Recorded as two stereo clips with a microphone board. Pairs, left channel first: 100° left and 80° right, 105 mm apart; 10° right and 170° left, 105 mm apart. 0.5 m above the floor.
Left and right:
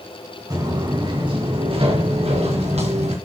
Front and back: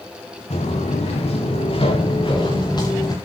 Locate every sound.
0.5 s footsteps: 25° right, 4 m; by 3.1 s 65° right, 4.5 m